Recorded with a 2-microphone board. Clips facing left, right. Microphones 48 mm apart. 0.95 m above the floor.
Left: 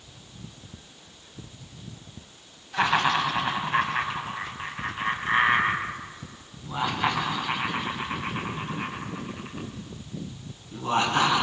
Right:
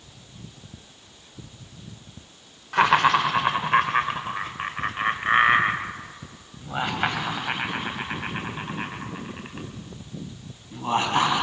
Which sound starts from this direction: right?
Laughter, at 2.7 s.